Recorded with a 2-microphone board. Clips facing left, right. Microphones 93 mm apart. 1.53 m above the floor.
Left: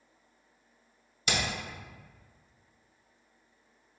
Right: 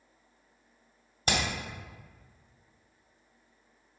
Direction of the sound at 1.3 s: 40° right (ahead or behind).